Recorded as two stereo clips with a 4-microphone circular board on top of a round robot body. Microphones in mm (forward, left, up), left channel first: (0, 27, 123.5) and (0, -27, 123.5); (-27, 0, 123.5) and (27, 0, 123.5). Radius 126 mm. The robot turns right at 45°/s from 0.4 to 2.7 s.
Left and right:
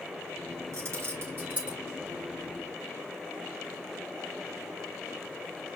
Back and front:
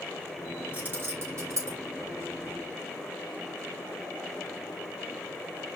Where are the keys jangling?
60° right, 3.5 m; by 1.8 s 15° right, 3.5 m.